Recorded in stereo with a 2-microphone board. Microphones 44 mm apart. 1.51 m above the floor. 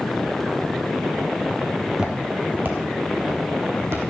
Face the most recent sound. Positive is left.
turn(degrees=-65)  # may be behind; listen again after turning